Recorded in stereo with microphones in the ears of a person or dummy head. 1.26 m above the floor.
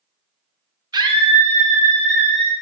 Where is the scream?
25° right (ahead or behind), 1.2 m; by 2.5 s 40° right (ahead or behind), 3.5 m.